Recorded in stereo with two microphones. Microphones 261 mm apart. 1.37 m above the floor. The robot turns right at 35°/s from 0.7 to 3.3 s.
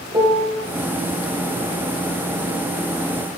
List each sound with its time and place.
0.1 s a piano: 20° right (ahead or behind), 0.5 m